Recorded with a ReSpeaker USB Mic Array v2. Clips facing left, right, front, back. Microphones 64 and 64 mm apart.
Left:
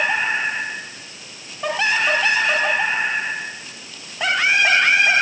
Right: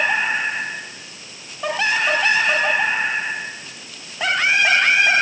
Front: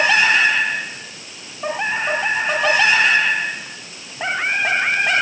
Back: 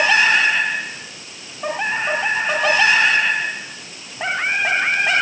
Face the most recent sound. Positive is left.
No sound to turn to.